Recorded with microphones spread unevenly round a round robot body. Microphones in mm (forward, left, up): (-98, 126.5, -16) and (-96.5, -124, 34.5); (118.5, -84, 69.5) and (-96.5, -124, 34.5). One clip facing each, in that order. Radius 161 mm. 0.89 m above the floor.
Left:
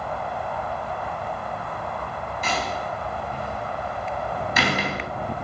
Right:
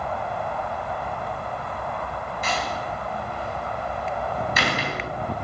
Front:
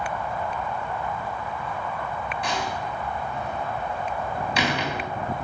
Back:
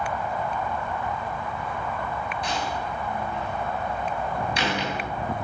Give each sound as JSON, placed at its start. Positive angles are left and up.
{"t": 2.4, "sound": "a door slam", "azimuth_deg": 65, "distance_m": 4.0}